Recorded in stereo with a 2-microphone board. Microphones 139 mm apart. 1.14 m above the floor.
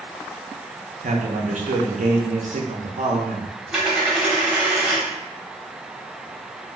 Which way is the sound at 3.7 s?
10° right (ahead or behind).